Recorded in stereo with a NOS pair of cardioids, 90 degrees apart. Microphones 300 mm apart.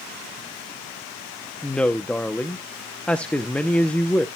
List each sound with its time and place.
1.6 s a woman speaking: 5° left, 0.7 m